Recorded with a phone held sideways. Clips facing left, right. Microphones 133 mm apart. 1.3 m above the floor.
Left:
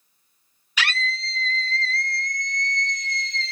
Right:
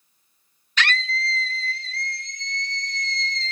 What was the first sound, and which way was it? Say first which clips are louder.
A scream: right 2 dB; 10° left (ahead or behind).